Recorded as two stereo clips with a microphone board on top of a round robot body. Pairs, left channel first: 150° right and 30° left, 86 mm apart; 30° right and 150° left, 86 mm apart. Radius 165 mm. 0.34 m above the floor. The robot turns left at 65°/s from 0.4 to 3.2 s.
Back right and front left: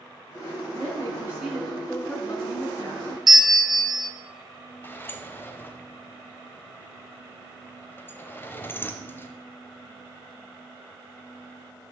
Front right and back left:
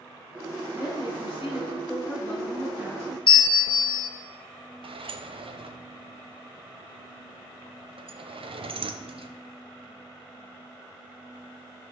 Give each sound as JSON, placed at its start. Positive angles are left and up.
{"t": 0.7, "sound": "a woman speaking", "azimuth_deg": -5, "distance_m": 4.5}
{"t": 3.3, "sound": "a bell", "azimuth_deg": -55, "distance_m": 0.5}
{"t": 4.8, "sound": "a sliding door", "azimuth_deg": 145, "distance_m": 0.8}